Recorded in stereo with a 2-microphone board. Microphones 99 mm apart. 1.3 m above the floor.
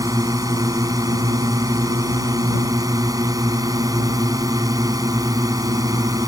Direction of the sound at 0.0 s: 35° right (ahead or behind).